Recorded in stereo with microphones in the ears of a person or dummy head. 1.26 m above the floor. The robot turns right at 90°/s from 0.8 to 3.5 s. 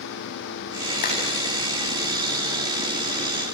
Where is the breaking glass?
No breaking glass in this recording.